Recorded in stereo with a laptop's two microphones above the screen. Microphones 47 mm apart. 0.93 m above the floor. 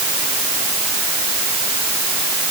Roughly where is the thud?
I don't hear a thud.